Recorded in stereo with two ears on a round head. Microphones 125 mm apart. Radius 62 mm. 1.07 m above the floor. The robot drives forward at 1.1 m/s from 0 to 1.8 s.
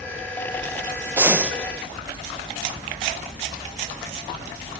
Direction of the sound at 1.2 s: 15° right (ahead or behind).